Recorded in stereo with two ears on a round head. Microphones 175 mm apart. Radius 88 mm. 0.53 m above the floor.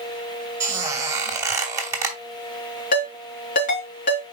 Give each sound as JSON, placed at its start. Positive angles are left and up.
{"t": 0.6, "sound": "a squeak", "side_deg": -15, "distance_m": 2.5}
{"t": 2.9, "sound": "a ringtone", "side_deg": 45, "distance_m": 4.0}